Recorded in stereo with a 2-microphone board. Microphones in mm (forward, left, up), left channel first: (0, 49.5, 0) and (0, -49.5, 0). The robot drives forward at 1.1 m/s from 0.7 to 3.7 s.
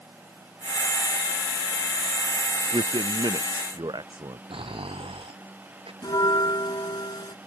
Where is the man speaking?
60° right (ahead or behind); by 4.4 s 55° right (ahead or behind).